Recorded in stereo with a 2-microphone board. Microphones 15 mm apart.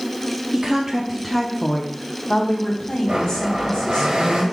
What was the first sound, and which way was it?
A woman speaking, 35° right (ahead or behind).